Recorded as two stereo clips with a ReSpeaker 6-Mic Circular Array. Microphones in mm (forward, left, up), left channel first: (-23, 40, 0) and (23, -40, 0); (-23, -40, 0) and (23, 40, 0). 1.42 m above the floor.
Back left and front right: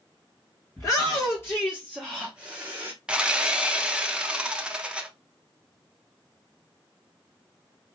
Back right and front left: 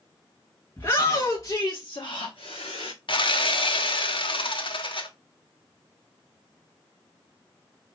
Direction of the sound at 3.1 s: 140° right.